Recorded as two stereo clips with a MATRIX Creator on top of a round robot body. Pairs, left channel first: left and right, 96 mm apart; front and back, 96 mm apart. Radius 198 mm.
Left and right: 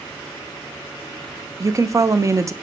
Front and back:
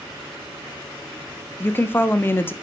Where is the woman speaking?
55° right, 1.1 m.